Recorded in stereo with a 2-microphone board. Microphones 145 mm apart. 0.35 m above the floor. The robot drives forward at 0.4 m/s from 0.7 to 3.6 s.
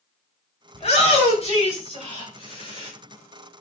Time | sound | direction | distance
0.7 | a shout | 50° left (ahead or behind) | 2 m